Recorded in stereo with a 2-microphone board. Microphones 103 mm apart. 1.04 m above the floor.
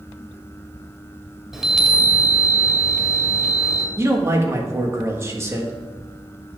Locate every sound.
1.5 s a chime: 5° right (ahead or behind), 1.6 m
4.0 s a man speaking: 30° right (ahead or behind), 1.6 m